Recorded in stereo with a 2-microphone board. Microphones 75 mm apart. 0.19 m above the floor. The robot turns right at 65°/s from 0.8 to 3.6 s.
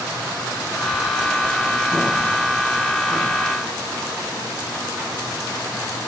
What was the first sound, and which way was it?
Only background noise.